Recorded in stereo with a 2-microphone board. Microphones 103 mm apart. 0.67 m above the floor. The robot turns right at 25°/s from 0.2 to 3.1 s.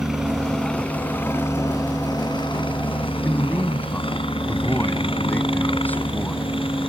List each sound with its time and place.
0.0 s a helicopter: 5° right; by 6.9 s 70° left
3.2 s a man speaking: 20° left (ahead or behind)